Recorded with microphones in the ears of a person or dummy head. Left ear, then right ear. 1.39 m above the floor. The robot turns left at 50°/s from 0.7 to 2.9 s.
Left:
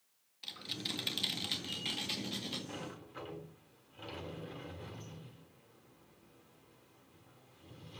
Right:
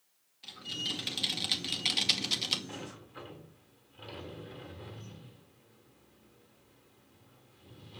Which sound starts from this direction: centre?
A sliding door, at 2.7 s.